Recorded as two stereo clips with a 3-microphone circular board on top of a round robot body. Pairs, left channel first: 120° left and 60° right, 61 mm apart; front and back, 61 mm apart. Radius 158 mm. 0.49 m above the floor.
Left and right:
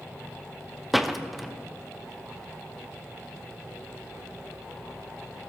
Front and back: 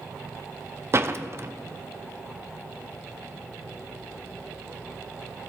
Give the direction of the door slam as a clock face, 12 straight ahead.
5 o'clock.